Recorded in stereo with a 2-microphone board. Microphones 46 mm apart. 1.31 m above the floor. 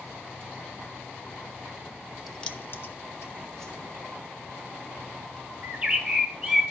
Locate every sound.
2.3 s keys jangling: 5° right (ahead or behind), 0.7 m; by 3.3 s 70° left (ahead or behind), 1.6 m
3.6 s a whoosh: 10° left (ahead or behind), 2.5 m
5.6 s a bird: 15° right (ahead or behind), 1.4 m